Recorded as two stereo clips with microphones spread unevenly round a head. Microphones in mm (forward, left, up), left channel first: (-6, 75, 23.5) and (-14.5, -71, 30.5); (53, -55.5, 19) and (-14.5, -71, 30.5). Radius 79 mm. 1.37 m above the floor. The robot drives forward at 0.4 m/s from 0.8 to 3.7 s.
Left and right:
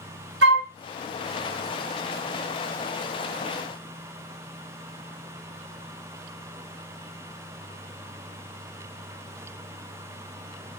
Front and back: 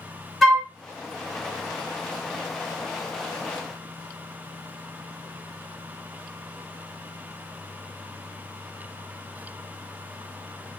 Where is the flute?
80° right, 0.8 m.